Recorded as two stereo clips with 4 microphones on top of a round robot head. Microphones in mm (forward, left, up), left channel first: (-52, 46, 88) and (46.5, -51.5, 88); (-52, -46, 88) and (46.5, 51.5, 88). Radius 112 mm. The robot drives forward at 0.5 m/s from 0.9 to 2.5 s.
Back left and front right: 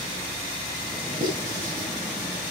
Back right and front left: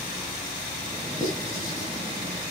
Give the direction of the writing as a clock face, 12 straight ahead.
2 o'clock.